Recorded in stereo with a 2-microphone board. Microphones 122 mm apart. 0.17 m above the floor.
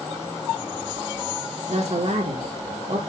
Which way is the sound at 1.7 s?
65° right (ahead or behind).